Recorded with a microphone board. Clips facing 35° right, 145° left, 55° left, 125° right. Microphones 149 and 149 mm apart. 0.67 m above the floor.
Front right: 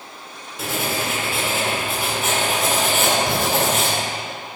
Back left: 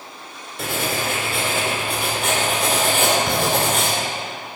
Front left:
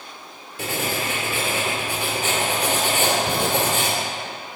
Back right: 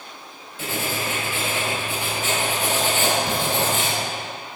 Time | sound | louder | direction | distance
0.6 | writing | even, front left 1 dB | 55° left | 1.8 m